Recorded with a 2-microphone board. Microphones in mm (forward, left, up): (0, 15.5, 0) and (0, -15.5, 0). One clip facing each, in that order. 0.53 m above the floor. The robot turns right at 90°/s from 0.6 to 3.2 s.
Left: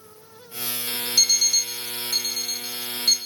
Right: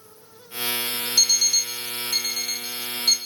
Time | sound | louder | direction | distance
1.2 | an alarm clock | even | 20° left (ahead or behind) | 0.6 m